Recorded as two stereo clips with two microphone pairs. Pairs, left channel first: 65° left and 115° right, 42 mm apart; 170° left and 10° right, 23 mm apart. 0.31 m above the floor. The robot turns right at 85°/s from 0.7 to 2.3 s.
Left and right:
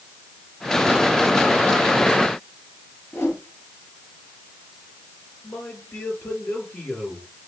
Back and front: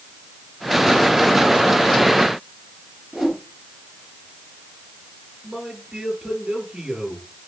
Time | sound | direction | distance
3.1 | a whoosh | 75° left | 3 m
5.4 | a man speaking | 60° left | 5.5 m